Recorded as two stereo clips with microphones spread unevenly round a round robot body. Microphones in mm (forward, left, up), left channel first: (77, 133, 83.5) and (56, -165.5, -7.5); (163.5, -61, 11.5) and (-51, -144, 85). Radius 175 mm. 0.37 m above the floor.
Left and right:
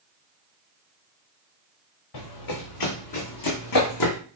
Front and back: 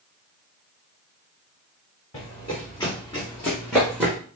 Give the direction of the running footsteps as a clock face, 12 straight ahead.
9 o'clock.